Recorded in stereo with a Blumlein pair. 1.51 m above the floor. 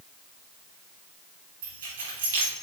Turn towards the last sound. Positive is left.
turn(degrees=-55)